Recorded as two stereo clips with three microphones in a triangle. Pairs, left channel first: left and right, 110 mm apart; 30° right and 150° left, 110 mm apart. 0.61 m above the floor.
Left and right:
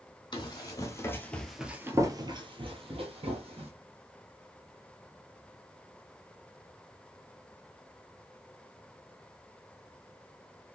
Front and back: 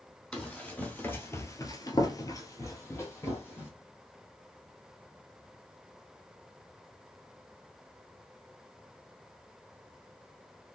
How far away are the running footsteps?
About 1.1 m.